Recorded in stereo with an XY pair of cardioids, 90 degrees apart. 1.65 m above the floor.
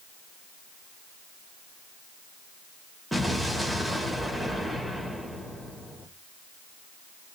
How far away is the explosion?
About 1.7 m.